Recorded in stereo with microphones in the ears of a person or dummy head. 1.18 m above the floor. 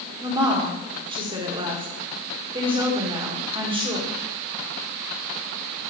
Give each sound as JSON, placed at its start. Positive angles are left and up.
{"t": 0.2, "sound": "a woman speaking", "side_deg": -20, "distance_m": 1.2}